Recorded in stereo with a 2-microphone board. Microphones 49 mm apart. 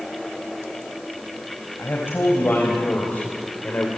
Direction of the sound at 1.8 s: 50° left (ahead or behind).